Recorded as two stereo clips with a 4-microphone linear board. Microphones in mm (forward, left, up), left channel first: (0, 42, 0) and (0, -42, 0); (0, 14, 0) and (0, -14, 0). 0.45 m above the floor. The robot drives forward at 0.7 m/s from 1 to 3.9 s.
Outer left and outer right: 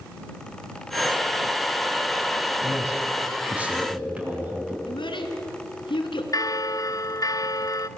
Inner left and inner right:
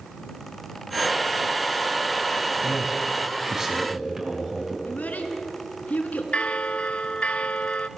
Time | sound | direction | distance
2.6 | a man speaking | 20° right (ahead or behind) | 4 m
4.8 | a child speaking | 75° left (ahead or behind) | 3 m
6.3 | a bell | 45° left (ahead or behind) | 0.9 m